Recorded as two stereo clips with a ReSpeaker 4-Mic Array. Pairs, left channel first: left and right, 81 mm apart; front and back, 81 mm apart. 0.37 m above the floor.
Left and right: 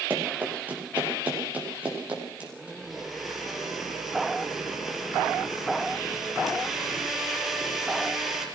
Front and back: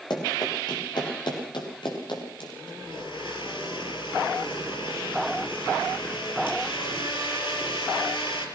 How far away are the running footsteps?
About 8 m.